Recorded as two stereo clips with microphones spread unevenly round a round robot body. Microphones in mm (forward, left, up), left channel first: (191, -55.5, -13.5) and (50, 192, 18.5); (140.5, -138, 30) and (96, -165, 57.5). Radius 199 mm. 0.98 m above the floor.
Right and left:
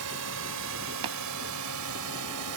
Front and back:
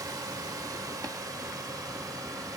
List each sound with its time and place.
0.0 s a drone: 175° left; by 2.6 s 165° left
1.0 s tapping: 150° left